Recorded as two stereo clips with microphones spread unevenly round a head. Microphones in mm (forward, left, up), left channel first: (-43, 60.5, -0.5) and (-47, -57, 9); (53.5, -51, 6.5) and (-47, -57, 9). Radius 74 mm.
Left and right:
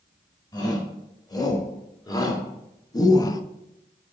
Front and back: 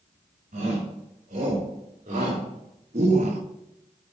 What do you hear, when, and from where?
0.5 s a shout: 145° left, 4.5 m